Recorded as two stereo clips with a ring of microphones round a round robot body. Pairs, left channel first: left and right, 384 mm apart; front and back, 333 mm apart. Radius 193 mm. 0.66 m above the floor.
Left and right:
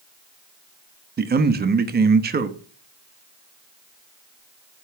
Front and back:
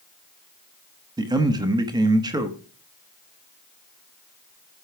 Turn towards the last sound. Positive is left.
turn(degrees=-115)